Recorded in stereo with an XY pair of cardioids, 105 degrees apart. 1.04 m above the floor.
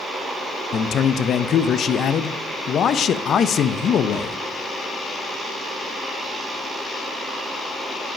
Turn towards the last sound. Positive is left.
turn(degrees=55)